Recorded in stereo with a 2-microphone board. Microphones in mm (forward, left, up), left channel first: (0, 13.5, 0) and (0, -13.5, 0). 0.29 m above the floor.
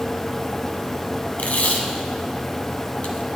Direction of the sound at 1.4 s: 65° left (ahead or behind).